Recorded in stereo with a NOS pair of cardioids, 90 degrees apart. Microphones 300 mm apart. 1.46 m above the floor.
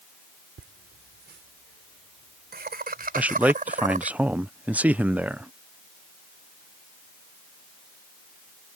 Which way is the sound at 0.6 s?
45° right.